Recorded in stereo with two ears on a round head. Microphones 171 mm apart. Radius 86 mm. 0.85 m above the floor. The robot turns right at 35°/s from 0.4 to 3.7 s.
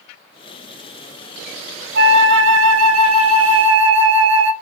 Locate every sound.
1.9 s a flute: 125° right, 0.5 m; by 4.5 s 65° right, 0.5 m